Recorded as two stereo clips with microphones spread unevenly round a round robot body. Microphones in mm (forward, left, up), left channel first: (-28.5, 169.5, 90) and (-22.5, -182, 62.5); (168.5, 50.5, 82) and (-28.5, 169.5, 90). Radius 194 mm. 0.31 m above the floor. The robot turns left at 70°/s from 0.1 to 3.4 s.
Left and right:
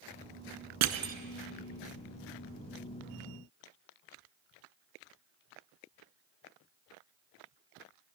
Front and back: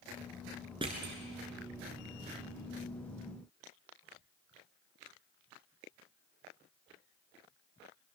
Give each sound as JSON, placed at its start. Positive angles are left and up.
{"t": 0.8, "sound": "crushing", "azimuth_deg": -135, "distance_m": 0.9}